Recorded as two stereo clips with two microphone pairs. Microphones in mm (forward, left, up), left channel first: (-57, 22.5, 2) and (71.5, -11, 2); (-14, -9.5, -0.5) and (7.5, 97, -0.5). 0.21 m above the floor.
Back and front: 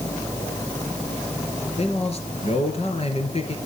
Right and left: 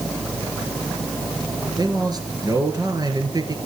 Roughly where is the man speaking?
Behind left.